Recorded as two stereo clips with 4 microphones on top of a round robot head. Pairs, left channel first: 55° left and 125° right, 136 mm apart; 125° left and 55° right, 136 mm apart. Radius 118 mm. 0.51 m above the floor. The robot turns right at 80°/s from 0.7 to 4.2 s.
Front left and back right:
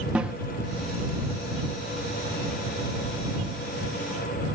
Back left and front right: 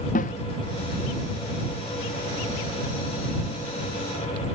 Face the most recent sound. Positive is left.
turn(degrees=75)